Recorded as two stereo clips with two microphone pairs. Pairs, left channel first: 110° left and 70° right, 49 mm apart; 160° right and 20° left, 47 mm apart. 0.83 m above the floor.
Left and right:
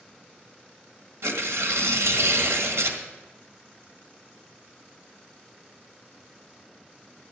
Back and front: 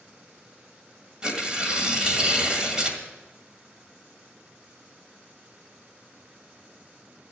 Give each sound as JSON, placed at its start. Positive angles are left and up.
{"t": 1.2, "sound": "tearing paper", "azimuth_deg": -50, "distance_m": 1.6}